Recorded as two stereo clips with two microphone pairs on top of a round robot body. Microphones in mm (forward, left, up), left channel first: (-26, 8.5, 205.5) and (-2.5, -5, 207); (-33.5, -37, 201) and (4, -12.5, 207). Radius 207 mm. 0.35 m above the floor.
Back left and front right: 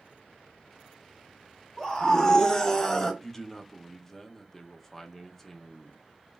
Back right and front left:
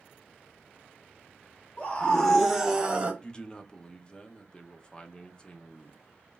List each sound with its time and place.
1.8 s a scream: 160° right, 1.3 m; by 3.1 s 90° left, 1.4 m
3.2 s a man speaking: 150° right, 0.8 m